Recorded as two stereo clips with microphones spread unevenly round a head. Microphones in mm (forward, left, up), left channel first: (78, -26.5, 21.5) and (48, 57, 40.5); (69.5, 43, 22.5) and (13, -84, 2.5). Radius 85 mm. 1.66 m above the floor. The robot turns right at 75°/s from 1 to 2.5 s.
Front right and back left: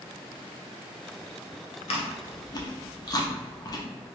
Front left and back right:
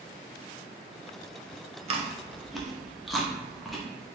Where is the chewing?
70° right, 0.5 m; by 3.9 s 20° right, 0.5 m.